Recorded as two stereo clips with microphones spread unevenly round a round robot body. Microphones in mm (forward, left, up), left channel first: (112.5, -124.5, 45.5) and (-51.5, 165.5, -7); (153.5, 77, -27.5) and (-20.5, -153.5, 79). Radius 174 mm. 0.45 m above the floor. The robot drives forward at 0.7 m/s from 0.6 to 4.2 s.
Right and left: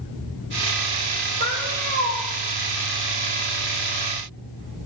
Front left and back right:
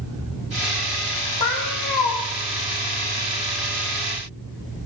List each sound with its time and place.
1.4 s a cat meowing: 60° left, 5.5 m; by 2.2 s 65° left, 5 m